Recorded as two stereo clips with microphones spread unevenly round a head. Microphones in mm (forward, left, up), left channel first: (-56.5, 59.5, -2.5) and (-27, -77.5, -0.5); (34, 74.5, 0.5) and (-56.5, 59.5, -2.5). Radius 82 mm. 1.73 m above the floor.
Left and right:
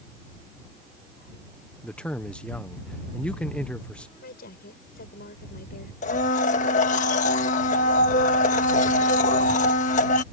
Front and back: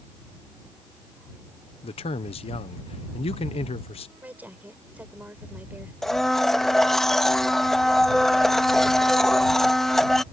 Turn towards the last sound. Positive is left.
turn(degrees=95)